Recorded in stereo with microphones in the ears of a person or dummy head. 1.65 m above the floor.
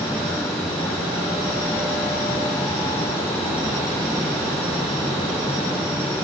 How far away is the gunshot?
No gunshot in this recording.